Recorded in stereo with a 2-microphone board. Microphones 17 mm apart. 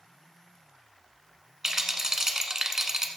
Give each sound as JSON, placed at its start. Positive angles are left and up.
{"t": 1.6, "sound": "a rattle", "side_deg": -20, "distance_m": 1.2}